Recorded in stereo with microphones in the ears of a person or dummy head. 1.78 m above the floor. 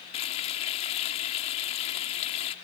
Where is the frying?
40° left (ahead or behind).